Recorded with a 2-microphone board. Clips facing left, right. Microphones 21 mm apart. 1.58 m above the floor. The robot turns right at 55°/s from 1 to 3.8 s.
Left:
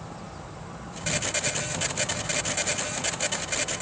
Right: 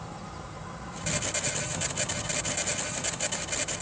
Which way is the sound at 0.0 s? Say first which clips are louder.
Even; 25° right.